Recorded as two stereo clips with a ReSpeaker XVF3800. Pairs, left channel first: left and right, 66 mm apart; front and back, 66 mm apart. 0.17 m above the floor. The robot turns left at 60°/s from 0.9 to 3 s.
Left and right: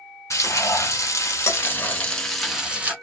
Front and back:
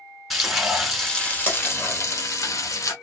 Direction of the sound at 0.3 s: 90° left.